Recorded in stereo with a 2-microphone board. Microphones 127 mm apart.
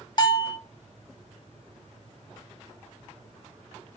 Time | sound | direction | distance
0.2 | a bell | 35° left (ahead or behind) | 0.6 m